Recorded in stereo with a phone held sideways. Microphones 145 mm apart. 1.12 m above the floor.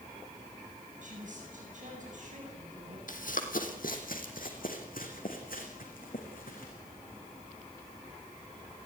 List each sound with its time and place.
1.0 s a woman speaking: 60° right (ahead or behind), 9 m
3.1 s running footsteps: 70° left (ahead or behind), 2.5 m; by 6.7 s 80° left, 5.5 m